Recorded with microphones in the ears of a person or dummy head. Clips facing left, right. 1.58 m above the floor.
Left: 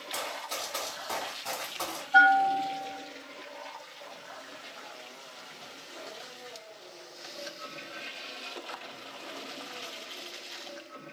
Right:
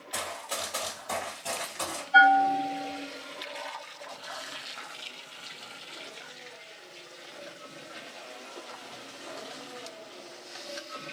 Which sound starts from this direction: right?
A bell, at 2.1 s.